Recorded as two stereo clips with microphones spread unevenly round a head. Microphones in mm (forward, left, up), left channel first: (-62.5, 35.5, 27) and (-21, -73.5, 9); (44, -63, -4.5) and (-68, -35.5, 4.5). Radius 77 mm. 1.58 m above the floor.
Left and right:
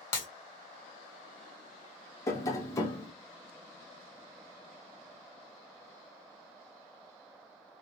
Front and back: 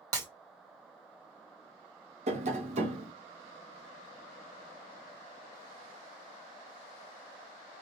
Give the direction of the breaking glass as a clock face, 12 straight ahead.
7 o'clock.